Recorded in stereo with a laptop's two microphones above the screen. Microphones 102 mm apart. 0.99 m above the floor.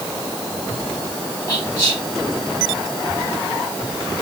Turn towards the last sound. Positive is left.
turn(degrees=35)  # may be behind; listen again after turning